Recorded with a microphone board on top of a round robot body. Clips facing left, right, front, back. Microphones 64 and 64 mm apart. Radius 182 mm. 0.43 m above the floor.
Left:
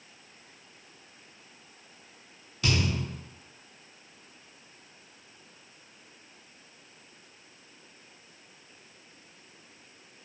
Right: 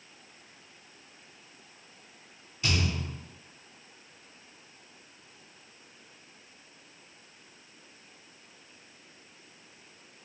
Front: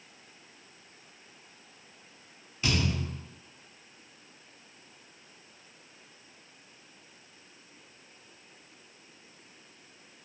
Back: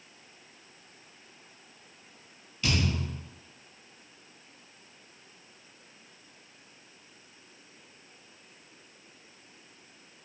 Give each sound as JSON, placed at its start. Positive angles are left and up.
{"t": 2.6, "sound": "a thud", "azimuth_deg": 75, "distance_m": 0.9}